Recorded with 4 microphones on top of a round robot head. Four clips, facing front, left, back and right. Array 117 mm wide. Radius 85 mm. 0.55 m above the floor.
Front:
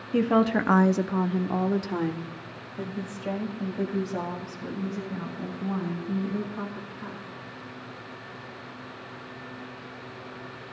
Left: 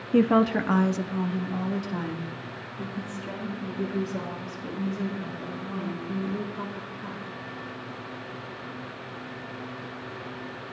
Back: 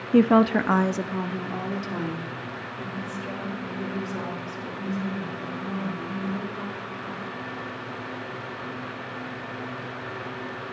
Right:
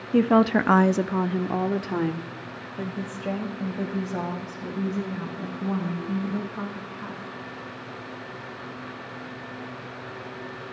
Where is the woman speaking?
170° left, 0.7 m; by 7.2 s 60° right, 6 m.